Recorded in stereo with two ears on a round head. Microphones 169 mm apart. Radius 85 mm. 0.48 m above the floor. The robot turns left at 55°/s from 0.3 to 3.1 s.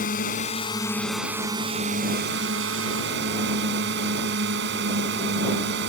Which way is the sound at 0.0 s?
45° left.